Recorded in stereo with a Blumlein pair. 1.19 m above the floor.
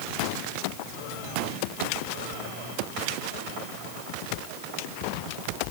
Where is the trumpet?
No trumpet in this recording.